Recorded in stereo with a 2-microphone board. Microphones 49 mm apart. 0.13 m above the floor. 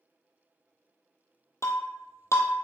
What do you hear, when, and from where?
1.6 s breaking glass: 70° left (ahead or behind), 1.5 m